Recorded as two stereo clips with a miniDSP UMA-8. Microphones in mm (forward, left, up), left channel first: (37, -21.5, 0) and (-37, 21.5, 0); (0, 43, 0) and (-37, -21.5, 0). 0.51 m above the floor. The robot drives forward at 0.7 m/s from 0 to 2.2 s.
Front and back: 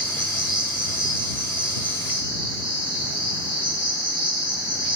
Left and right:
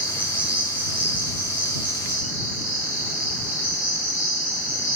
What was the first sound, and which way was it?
An insect, 170° left.